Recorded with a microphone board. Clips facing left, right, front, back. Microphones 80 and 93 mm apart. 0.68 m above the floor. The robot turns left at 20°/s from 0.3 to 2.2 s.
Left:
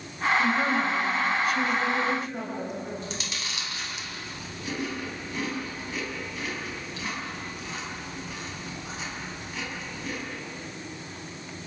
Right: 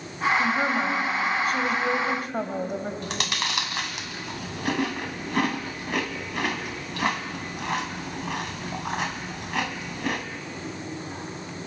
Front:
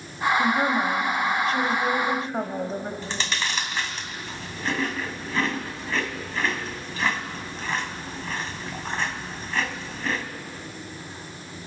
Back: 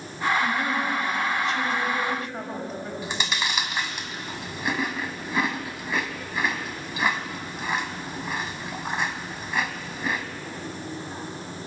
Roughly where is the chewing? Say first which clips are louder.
Right 6 dB, back 1 dB; right.